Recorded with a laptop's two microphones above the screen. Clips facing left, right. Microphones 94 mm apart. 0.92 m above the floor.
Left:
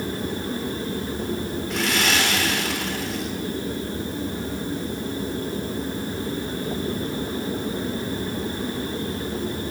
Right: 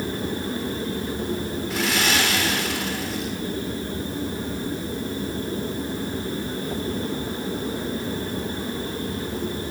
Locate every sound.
1.7 s sawing: centre (ahead or behind), 3 m